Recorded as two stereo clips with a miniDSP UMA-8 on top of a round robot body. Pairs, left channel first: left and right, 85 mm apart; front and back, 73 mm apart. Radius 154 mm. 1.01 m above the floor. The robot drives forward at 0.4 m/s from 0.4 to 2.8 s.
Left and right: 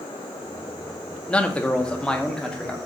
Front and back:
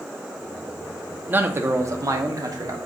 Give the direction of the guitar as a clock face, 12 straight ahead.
No guitar in this recording.